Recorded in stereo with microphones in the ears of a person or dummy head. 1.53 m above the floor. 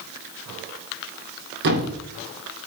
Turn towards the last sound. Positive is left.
turn(degrees=-60)  # may be behind; listen again after turning